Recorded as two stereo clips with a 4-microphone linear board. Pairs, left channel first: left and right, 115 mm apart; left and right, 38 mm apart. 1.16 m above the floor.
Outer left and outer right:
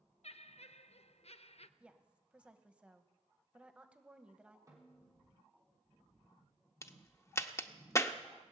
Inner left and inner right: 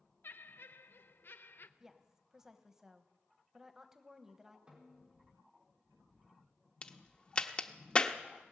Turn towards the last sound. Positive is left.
turn(degrees=25)  # may be behind; listen again after turning